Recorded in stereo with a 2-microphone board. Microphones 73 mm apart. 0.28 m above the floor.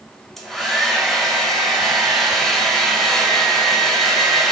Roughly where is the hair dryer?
Centre.